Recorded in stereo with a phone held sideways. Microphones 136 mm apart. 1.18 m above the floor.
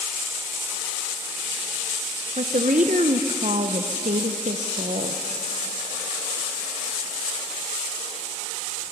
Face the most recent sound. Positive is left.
turn(degrees=-65)  # may be behind; listen again after turning